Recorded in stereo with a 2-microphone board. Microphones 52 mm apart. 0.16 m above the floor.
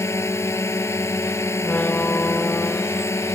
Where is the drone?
65° left (ahead or behind).